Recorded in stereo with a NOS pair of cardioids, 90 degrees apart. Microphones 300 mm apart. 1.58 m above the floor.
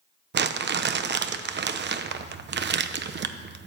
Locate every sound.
0.3 s crumpling: 40° right, 0.9 m